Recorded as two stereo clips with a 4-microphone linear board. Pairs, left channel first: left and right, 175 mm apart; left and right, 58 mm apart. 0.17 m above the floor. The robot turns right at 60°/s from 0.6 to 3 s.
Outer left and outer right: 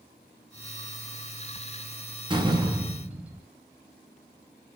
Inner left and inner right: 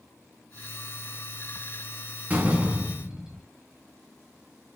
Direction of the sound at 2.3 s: 55° right.